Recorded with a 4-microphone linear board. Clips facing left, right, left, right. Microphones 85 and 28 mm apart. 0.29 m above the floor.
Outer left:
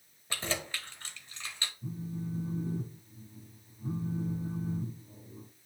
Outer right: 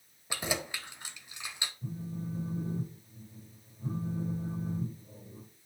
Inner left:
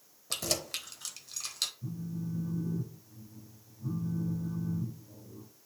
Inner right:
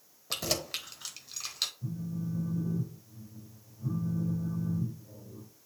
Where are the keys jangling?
15° right (ahead or behind), 0.9 m.